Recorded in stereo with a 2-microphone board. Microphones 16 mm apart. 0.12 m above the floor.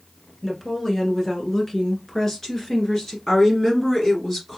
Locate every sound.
0.4 s a woman speaking: 25° left (ahead or behind), 1.4 m; by 3.2 s 35° left (ahead or behind), 1.8 m
3.3 s a woman speaking: 15° left (ahead or behind), 2 m